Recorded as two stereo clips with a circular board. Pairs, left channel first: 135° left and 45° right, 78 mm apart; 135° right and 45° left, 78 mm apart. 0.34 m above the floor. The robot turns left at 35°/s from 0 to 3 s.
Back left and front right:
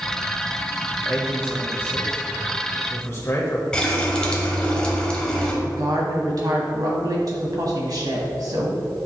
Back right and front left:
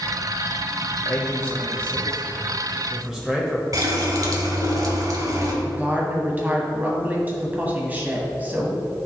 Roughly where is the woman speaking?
Ahead.